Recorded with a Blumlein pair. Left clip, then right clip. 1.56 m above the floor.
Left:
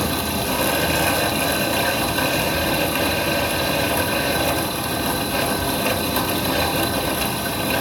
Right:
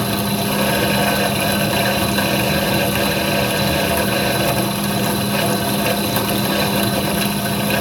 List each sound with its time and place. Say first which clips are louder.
0.0 s a fan: right 2 dB; 15° right, 1.2 m